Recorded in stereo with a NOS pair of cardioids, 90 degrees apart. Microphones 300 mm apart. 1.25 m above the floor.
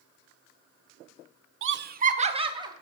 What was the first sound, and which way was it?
Laughter, 45° right.